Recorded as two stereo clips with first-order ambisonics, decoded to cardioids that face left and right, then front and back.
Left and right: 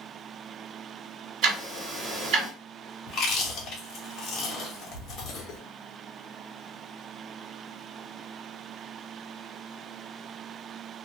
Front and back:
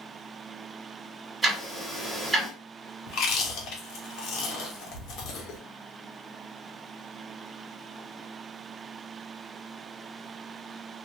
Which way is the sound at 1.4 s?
100° right.